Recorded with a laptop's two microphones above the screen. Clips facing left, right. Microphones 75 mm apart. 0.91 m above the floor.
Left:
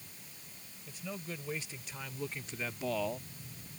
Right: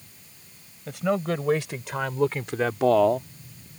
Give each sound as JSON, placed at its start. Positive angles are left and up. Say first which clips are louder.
{"t": 0.9, "sound": "a man speaking", "louder": "right 18 dB", "side_deg": -75}